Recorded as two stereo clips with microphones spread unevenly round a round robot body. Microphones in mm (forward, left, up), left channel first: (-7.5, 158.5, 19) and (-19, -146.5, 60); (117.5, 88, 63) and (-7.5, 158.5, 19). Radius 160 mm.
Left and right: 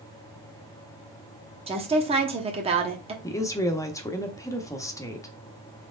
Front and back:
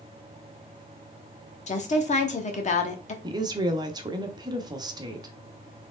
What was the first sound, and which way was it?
A woman speaking, 25° right.